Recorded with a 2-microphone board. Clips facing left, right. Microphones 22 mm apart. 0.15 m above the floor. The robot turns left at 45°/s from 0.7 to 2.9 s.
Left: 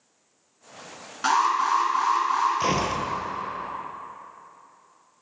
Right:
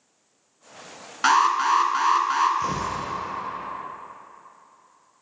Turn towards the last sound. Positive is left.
turn(degrees=60)  # may be behind; listen again after turning